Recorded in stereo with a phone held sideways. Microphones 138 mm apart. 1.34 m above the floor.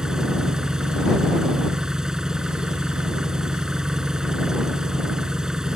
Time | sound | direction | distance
0.0 | an engine running | 5° right (ahead or behind) | ?